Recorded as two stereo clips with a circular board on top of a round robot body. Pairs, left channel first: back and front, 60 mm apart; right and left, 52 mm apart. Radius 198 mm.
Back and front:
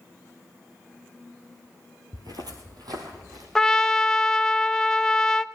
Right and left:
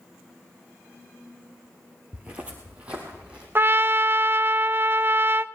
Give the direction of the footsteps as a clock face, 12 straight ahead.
11 o'clock.